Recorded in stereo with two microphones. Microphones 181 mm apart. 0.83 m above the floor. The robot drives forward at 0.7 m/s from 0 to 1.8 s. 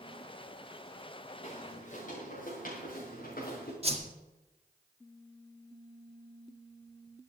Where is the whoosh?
35° right (ahead or behind), 1.7 m.